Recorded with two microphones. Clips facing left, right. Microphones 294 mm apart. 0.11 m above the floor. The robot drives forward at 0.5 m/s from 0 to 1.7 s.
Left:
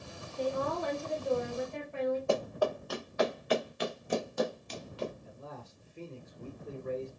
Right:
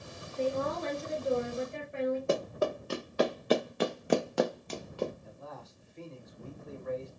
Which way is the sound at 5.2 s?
40° left (ahead or behind).